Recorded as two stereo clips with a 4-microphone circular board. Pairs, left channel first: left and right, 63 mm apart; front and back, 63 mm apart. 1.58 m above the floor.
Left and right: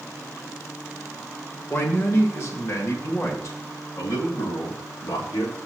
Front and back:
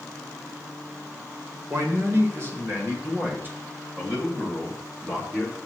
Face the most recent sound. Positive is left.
turn(degrees=110)